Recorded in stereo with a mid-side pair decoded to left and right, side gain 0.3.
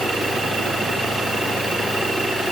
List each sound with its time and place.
Only background noise.